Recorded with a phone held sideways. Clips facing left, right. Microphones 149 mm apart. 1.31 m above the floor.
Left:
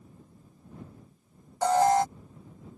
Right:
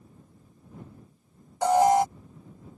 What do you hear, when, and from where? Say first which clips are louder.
1.6 s an alarm: right 2 dB; 15° right (ahead or behind)